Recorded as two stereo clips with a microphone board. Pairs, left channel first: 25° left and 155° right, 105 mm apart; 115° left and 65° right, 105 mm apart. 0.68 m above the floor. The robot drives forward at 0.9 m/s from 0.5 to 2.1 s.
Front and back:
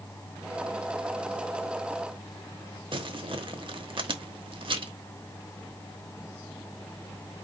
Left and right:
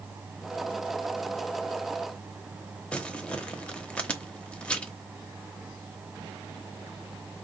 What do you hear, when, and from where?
2.9 s crumpling: 170° right, 0.9 m